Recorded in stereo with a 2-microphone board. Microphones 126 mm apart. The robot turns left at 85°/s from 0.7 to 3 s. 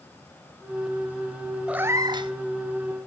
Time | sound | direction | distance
1.7 | a cat meowing | 10° right | 0.5 m